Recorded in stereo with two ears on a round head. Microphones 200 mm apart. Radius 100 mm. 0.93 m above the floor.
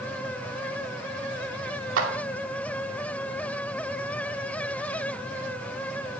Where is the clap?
60° right (ahead or behind), 2.5 m.